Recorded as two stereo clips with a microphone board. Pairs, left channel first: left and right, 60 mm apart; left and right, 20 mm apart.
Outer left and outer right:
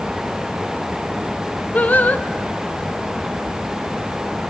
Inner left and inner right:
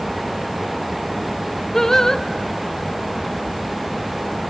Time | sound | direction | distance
1.7 | singing | 30° left (ahead or behind) | 0.9 m